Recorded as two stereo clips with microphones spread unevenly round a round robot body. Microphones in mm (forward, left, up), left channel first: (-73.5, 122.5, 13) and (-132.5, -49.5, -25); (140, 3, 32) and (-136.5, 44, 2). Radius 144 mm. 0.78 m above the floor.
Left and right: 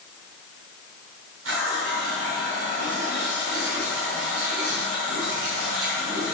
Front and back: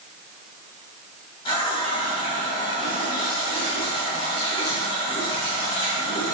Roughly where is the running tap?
Right.